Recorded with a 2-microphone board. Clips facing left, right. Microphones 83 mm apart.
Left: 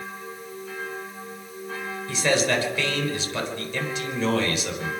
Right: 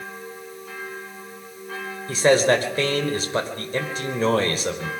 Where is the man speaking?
40° right (ahead or behind), 4 m.